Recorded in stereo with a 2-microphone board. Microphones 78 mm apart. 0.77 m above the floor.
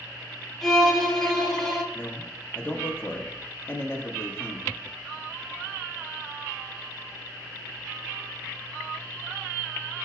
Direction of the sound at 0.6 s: 5° left (ahead or behind).